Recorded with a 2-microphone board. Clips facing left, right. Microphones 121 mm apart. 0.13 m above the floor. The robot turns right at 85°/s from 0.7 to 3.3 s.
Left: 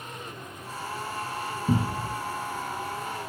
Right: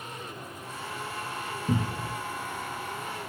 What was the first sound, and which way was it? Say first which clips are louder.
A cupboard door: left 3 dB; 20° left (ahead or behind).